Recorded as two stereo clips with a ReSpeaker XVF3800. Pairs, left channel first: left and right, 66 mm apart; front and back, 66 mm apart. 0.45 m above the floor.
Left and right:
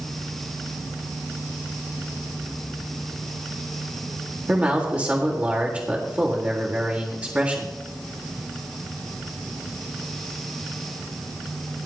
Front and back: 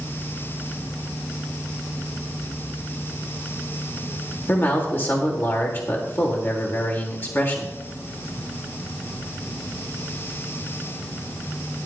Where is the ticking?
I don't hear ticking.